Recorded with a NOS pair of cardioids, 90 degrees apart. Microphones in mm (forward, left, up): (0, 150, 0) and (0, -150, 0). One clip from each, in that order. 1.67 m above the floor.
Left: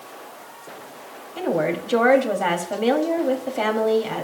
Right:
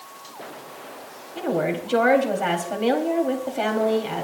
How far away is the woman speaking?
About 4 m.